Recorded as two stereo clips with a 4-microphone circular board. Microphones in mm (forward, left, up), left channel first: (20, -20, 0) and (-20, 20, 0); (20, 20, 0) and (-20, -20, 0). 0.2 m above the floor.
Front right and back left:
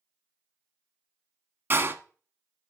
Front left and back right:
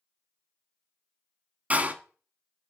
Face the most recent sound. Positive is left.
turn(degrees=170)